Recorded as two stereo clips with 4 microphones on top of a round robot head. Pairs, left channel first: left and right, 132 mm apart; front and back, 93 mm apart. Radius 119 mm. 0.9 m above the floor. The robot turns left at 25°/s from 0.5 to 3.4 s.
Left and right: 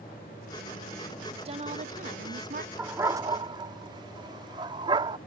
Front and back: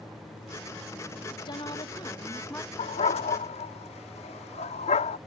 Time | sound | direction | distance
1.3 | a woman speaking | 40° right | ?
2.8 | a dog barking | 10° right | ?